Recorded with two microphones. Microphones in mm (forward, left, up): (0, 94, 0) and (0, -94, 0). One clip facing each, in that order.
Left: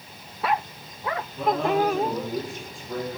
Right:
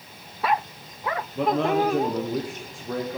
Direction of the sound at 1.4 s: 85° right.